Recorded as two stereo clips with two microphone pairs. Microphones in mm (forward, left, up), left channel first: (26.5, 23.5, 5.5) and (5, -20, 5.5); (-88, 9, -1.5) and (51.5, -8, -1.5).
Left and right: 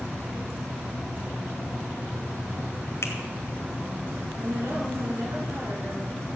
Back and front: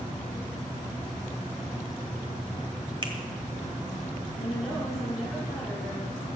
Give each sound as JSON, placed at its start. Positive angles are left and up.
{"t": 3.0, "sound": "a finger snap", "azimuth_deg": 45, "distance_m": 1.9}
{"t": 4.3, "sound": "a woman speaking", "azimuth_deg": -95, "distance_m": 6.0}